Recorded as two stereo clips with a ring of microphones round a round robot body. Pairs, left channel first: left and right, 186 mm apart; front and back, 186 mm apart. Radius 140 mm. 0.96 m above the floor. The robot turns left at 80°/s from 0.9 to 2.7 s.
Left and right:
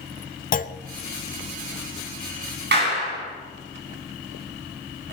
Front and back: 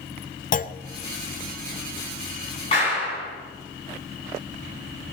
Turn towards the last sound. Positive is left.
turn(degrees=-70)